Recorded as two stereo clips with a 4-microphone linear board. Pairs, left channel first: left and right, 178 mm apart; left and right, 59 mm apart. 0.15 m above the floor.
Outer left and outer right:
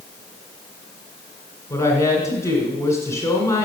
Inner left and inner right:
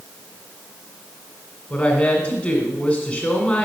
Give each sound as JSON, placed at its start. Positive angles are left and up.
{"t": 1.7, "sound": "a woman speaking", "side_deg": 15, "distance_m": 1.7}